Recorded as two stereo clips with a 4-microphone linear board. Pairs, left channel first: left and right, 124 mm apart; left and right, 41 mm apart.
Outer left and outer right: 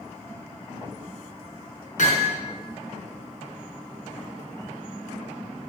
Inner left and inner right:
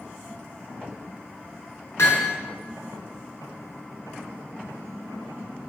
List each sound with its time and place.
2.0 s hammering: 85° left, 5 m